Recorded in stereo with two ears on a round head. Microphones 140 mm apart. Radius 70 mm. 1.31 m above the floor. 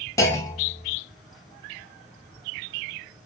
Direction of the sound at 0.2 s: 20° left (ahead or behind).